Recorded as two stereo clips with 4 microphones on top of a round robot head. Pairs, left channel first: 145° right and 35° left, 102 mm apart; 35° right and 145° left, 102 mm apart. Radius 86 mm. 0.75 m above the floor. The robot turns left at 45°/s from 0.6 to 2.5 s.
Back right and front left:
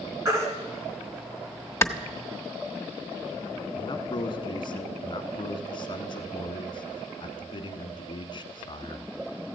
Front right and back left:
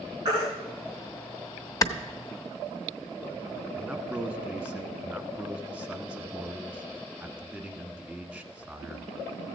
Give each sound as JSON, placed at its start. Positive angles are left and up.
{"t": 0.2, "sound": "a baby crying", "azimuth_deg": 95, "distance_m": 3.0}
{"t": 1.8, "sound": "a clap", "azimuth_deg": -85, "distance_m": 0.9}
{"t": 3.8, "sound": "a man speaking", "azimuth_deg": -135, "distance_m": 1.3}